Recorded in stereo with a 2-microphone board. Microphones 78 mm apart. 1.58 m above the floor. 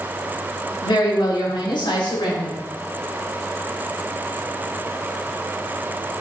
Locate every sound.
0.8 s a woman speaking: 80° left, 4 m; by 2.6 s 85° left, 7 m